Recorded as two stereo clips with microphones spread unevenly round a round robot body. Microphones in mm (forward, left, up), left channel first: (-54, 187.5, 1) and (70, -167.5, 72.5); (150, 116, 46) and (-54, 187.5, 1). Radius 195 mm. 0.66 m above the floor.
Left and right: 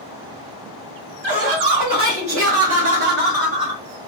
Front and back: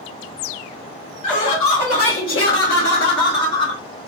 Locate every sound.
1.2 s laughter: 35° right, 2 m; by 3.8 s 15° left, 1.4 m